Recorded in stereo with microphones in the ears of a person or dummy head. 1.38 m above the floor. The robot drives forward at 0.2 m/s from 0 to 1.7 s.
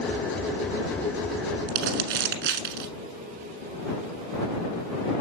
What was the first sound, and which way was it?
Crumpling, 65° right (ahead or behind).